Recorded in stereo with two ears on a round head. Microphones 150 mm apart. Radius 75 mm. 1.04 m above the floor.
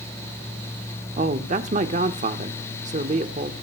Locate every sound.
1.2 s a man speaking: 40° right (ahead or behind), 1.3 m